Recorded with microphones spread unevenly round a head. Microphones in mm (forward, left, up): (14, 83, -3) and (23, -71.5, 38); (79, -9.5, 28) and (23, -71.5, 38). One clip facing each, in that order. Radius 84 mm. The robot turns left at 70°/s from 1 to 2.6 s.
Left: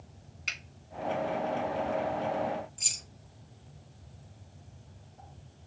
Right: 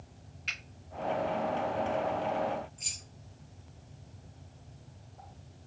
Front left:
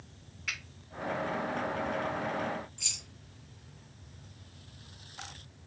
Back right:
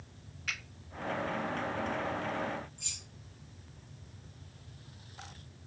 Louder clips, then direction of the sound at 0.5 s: Left 1 dB, even; 140° left.